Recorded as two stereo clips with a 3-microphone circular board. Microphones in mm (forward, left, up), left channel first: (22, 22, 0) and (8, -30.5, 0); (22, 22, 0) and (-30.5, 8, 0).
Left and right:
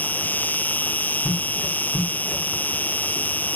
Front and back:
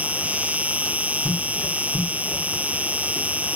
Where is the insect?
130° left.